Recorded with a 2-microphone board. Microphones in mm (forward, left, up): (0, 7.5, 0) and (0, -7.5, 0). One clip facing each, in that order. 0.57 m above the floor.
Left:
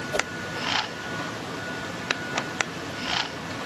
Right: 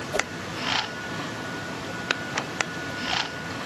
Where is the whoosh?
20° left (ahead or behind).